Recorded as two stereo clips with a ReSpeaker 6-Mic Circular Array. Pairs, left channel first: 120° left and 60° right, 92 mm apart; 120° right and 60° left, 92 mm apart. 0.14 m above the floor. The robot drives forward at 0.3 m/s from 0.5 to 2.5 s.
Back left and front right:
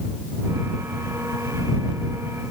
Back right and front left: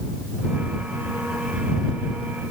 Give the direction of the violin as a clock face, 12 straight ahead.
I don't hear a violin.